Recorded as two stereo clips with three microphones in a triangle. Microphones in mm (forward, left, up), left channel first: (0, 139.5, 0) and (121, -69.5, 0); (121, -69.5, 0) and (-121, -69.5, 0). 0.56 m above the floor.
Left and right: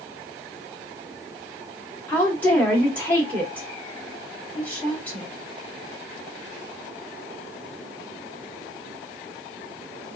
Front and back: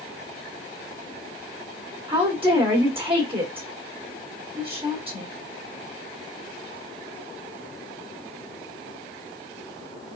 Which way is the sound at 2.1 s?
170° right.